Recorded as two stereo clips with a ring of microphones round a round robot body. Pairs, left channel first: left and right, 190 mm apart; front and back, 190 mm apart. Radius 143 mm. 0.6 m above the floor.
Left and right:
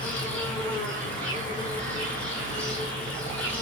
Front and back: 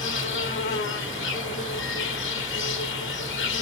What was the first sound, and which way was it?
An insect, 5° left.